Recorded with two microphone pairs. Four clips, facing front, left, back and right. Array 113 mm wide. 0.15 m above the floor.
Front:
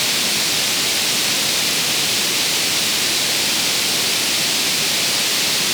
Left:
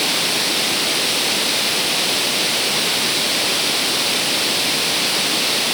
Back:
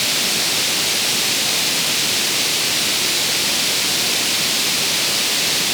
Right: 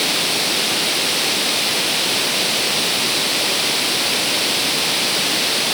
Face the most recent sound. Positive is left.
No sound to turn to.